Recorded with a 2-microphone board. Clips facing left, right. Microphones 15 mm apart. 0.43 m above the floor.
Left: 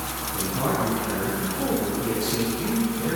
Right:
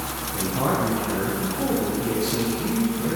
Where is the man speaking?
20° right (ahead or behind), 2 m; by 3.2 s 30° left (ahead or behind), 2.5 m.